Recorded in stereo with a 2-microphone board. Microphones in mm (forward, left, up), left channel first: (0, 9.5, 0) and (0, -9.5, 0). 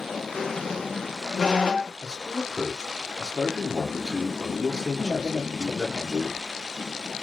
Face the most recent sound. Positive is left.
turn(degrees=-25)  # may be behind; listen again after turning